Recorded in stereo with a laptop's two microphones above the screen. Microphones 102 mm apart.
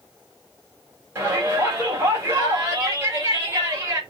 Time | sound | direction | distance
1.1 | a shout | 25° right (ahead or behind) | 3.5 m